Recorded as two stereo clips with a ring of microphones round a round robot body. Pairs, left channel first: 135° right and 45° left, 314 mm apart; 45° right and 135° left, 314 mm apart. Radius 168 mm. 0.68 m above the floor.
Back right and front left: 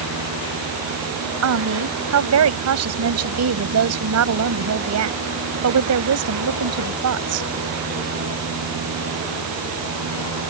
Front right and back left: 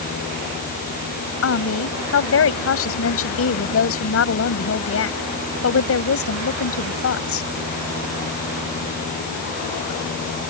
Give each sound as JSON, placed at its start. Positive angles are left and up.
{"t": 1.4, "sound": "a woman speaking", "azimuth_deg": 5}